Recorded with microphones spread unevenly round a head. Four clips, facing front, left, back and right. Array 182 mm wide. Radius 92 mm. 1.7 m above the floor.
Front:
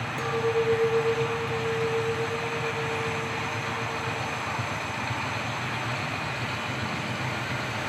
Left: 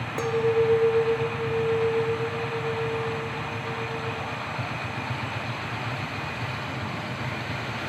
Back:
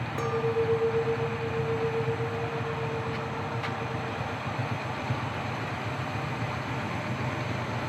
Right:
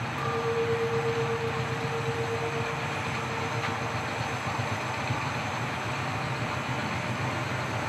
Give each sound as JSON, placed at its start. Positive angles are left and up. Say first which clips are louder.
{"t": 0.2, "sound": "a clink", "louder": "left 7 dB, front 2 dB", "azimuth_deg": 100, "distance_m": 1.7}